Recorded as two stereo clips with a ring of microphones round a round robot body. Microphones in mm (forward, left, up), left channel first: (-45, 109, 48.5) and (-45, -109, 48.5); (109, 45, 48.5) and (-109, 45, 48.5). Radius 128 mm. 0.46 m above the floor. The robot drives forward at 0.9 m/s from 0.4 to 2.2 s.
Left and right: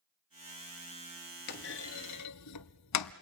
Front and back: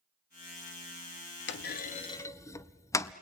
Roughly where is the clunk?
Ahead left.